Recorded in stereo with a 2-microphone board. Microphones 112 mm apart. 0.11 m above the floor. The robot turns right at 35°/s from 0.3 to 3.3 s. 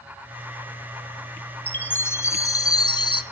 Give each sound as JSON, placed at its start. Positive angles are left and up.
{"t": 1.7, "sound": "a chime", "azimuth_deg": 20, "distance_m": 0.8}